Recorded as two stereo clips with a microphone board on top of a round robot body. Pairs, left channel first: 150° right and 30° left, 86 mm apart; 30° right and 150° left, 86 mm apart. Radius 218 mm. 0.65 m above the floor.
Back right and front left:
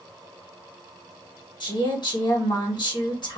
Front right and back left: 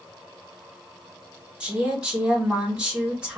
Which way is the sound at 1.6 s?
135° right.